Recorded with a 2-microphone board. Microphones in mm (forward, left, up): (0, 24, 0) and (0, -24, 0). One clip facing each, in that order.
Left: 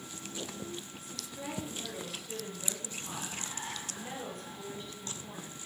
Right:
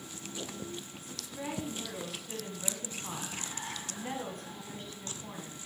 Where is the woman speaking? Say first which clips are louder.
Right 2 dB; 40° right (ahead or behind), 2.5 m.